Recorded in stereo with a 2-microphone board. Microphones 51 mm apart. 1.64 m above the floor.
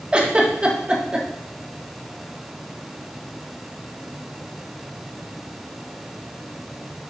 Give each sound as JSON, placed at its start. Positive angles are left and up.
{"t": 0.1, "sound": "a giggle", "side_deg": -20, "distance_m": 1.2}